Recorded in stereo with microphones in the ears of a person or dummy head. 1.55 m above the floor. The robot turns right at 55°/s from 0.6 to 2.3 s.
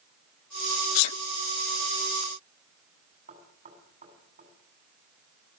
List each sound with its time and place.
0.9 s a sneeze: 85° left, 0.5 m; by 1.2 s 70° left (ahead or behind), 0.5 m
3.3 s knocking: 35° right (ahead or behind), 8 m